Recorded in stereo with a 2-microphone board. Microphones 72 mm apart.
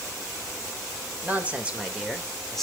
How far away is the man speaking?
About 3 m.